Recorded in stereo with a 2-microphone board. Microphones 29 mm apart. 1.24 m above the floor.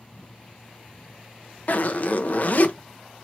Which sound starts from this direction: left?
A zipper, at 1.7 s.